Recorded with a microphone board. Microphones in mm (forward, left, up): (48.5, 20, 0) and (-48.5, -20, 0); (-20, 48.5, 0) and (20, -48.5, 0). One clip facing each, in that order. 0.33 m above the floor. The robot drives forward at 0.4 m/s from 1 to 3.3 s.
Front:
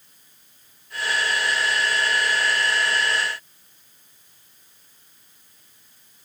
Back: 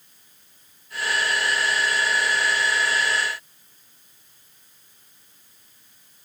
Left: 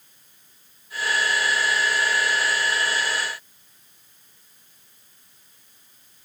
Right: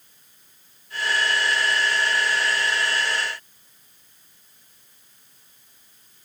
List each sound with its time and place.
Only background noise.